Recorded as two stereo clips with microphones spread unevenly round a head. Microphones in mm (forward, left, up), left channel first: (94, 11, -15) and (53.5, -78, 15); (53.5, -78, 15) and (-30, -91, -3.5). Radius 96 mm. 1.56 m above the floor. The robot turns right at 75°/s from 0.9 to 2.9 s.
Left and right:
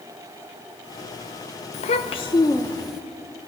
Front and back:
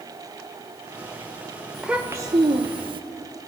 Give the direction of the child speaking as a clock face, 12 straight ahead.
9 o'clock.